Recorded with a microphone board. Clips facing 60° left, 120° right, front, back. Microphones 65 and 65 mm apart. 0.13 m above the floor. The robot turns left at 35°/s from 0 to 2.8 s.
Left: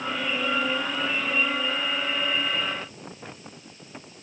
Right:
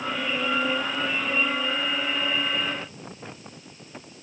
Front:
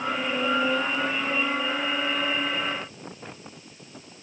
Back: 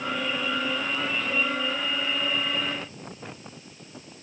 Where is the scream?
No scream in this recording.